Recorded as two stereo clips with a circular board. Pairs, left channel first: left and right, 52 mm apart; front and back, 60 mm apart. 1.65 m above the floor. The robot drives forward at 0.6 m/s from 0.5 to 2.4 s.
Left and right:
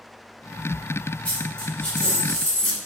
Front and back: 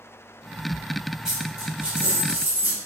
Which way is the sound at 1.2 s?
115° left.